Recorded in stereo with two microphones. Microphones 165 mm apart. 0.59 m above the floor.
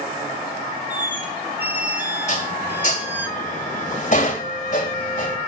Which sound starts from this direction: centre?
A squeak, at 0.9 s.